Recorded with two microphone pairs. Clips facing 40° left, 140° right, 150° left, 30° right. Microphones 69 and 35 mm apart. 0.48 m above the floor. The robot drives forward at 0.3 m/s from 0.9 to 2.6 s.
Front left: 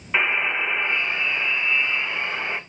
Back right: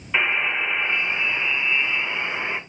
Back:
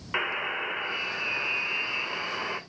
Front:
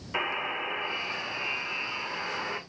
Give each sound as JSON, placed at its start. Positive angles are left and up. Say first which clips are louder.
{"t": 0.1, "sound": "a buzzer", "louder": "even, back 1 dB", "azimuth_deg": 115, "distance_m": 1.8}